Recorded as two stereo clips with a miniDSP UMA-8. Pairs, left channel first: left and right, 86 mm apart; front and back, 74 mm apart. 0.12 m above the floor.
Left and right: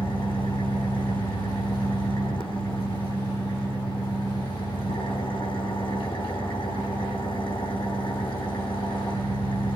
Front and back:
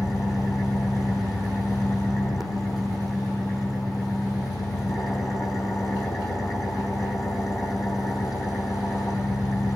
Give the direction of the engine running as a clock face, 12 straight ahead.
9 o'clock.